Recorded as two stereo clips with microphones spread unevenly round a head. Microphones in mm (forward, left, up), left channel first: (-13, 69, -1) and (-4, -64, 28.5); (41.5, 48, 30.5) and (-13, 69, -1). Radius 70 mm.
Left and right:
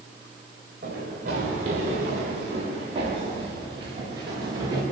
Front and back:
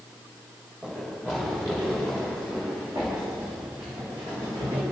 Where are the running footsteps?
115° right, 9.5 m; by 4.8 s 145° right, 9.5 m.